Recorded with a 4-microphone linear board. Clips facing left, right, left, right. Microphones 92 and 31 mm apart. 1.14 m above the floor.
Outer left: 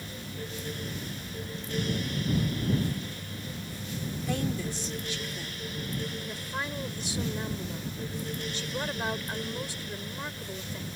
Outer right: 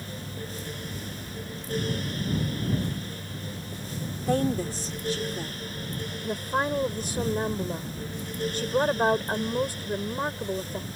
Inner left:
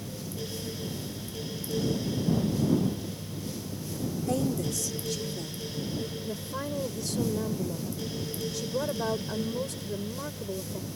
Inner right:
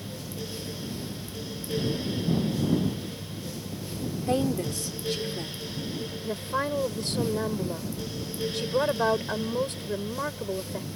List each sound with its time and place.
4.3 s a woman speaking: 40° right (ahead or behind)
6.2 s a woman speaking: 45° right (ahead or behind)